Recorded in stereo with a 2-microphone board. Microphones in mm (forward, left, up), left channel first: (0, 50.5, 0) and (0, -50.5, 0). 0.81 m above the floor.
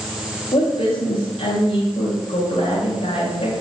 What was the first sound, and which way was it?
A woman speaking, 65° left (ahead or behind).